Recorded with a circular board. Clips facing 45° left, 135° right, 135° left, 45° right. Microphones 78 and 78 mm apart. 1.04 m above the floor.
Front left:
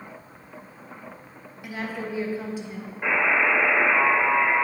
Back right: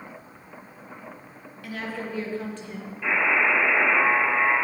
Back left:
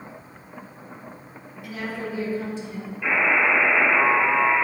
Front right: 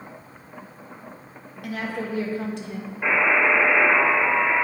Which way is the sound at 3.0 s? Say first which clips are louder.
Front left 1 dB, front right 1 dB; straight ahead.